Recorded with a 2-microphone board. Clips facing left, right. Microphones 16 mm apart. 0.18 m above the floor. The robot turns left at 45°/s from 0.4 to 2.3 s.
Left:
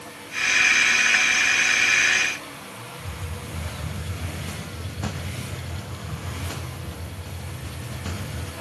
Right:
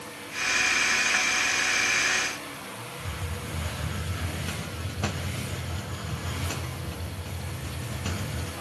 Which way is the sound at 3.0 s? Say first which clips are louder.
Even; 45° right (ahead or behind).